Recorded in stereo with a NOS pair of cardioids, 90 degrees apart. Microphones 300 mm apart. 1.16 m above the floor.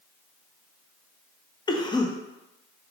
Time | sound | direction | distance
1.7 | a cough | 15° left | 0.7 m